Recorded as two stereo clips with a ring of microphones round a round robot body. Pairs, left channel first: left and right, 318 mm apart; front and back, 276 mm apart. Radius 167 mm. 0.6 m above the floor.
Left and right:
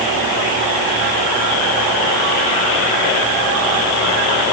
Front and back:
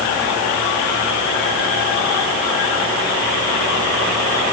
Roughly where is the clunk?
No clunk in this recording.